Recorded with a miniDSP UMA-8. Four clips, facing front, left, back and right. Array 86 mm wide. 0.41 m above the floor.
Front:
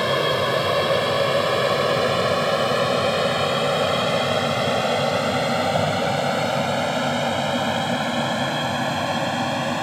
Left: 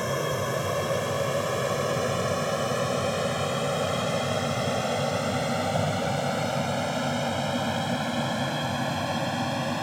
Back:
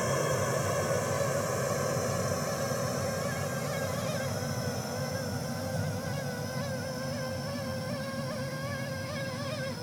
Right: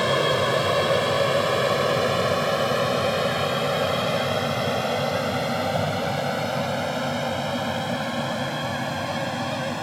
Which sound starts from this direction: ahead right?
An aircraft, at 0.0 s.